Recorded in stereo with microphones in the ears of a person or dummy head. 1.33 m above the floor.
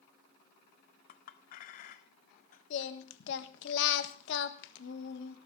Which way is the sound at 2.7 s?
70° left (ahead or behind).